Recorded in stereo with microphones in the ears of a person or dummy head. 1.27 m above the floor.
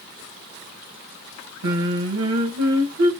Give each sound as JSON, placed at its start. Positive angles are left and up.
{"t": 1.6, "sound": "singing", "side_deg": -75, "distance_m": 1.8}